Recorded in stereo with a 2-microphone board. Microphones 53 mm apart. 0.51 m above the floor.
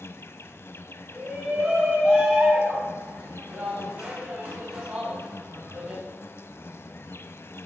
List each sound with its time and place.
0.0 s an insect: 55° left (ahead or behind), 0.8 m
1.1 s a shout: 35° right (ahead or behind), 4.5 m